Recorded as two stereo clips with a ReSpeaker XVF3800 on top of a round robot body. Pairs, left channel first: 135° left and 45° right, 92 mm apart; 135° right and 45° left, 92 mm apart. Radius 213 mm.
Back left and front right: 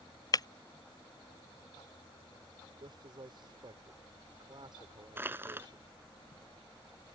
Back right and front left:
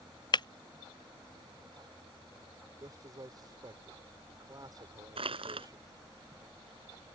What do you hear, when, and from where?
0.3 s breaking glass: 175° right
2.8 s a man speaking: 5° right
5.2 s crushing: 25° left